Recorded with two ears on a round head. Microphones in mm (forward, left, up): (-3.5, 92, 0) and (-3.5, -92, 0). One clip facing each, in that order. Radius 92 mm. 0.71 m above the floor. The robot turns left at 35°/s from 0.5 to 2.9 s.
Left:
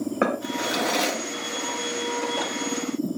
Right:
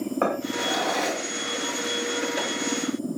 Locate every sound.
0.2 s a drawer: 25° left (ahead or behind), 4 m; by 3.1 s 75° left (ahead or behind), 4 m